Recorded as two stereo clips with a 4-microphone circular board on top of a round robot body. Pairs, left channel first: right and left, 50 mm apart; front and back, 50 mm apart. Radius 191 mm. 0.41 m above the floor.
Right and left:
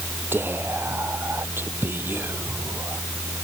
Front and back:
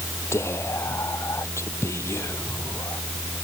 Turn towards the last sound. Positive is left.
turn(degrees=40)